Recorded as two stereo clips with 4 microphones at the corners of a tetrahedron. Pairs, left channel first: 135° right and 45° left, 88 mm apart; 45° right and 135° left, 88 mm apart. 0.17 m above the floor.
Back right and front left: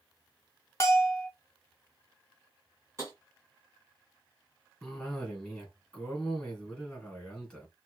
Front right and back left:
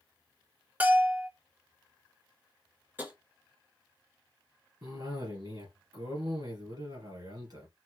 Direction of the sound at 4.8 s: 140° left.